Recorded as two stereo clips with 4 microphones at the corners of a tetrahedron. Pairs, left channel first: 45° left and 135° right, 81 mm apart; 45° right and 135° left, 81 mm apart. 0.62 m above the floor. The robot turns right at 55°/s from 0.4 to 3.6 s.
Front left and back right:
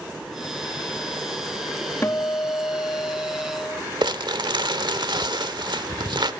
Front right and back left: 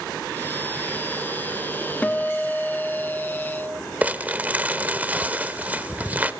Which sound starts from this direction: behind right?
Crumpling, at 4.0 s.